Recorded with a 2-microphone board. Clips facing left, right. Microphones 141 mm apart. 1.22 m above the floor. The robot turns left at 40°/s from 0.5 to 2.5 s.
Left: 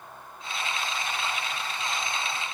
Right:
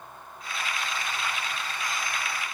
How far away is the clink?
No clink in this recording.